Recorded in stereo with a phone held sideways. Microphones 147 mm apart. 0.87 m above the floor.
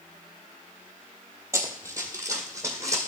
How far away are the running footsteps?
About 1.3 m.